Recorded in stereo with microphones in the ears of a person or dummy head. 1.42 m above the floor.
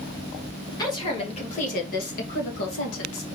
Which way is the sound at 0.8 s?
20° left (ahead or behind).